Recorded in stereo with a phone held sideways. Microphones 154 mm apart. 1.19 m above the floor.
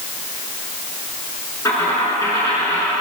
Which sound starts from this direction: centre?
A dropped coin, at 1.6 s.